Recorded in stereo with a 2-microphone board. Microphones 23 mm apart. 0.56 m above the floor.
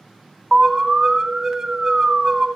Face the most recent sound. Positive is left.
turn(degrees=-25)  # may be behind; listen again after turning